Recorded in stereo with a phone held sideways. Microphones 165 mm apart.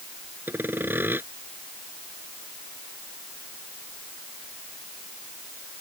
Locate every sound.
0.5 s sawing: 10° right (ahead or behind)